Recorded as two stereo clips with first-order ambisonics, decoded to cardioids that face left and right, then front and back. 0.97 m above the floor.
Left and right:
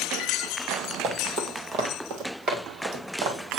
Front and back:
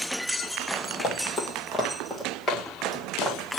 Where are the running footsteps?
40° right, 1.5 m; by 3.4 s 100° right, 2.5 m.